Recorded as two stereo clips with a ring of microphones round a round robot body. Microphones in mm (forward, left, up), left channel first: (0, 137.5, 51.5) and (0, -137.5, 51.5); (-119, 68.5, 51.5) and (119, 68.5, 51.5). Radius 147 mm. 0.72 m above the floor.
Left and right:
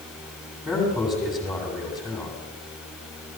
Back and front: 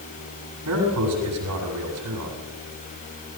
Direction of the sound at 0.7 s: Straight ahead.